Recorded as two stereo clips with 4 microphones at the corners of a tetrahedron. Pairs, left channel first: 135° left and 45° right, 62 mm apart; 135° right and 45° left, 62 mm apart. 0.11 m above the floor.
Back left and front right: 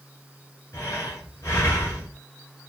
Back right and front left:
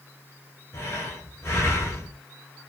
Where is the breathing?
Straight behind, 1.9 m.